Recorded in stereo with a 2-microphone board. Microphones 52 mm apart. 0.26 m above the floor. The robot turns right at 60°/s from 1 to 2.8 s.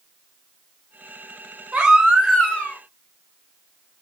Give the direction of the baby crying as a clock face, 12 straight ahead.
1 o'clock.